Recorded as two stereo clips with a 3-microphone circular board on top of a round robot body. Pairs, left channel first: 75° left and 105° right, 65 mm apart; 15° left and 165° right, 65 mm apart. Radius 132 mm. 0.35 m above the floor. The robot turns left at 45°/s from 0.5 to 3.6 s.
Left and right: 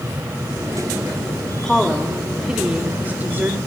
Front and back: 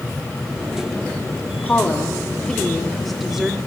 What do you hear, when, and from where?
1.6 s a woman speaking: 5° right, 1.3 m; by 3.6 s 90° right, 1.3 m